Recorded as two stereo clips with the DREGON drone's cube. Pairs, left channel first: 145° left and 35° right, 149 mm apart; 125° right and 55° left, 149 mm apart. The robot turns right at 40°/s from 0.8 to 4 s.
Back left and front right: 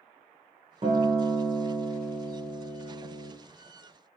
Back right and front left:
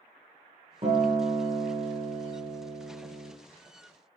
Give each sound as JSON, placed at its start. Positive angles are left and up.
{"t": 0.8, "sound": "a guitar", "azimuth_deg": 10, "distance_m": 0.8}